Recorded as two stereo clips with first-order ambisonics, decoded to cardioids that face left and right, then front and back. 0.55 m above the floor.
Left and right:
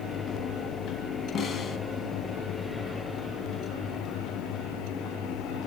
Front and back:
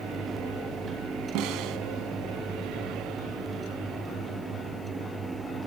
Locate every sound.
1.4 s a snare drum: 150° left, 2.5 m